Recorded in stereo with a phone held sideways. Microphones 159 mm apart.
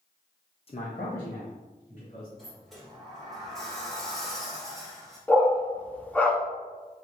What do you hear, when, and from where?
0.7 s a man speaking: 35° left (ahead or behind), 0.5 m; by 2.3 s 60° left (ahead or behind), 2.5 m
2.4 s a sliding door: centre (ahead or behind), 1.8 m
5.3 s a dog barking: 10° left (ahead or behind), 0.6 m